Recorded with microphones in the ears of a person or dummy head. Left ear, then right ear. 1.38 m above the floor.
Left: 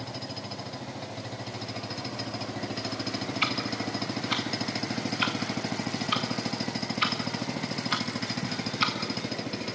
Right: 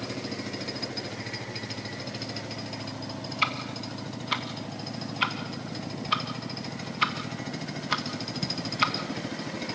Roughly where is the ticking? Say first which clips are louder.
Right 1 dB; centre.